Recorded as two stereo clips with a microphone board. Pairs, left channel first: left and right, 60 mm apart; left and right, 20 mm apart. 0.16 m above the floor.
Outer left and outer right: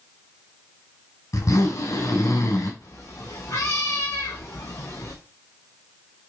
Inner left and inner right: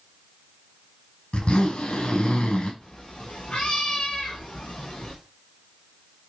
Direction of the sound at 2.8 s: 75° left (ahead or behind).